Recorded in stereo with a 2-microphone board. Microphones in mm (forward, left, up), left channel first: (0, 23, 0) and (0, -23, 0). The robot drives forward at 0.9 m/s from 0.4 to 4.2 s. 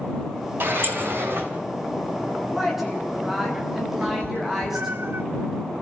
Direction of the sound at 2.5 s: 5° right (ahead or behind).